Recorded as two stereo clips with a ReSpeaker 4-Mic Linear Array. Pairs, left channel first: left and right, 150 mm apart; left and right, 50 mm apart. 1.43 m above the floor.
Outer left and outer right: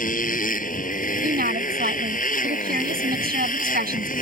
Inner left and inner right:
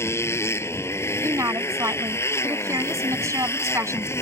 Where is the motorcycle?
65° left (ahead or behind).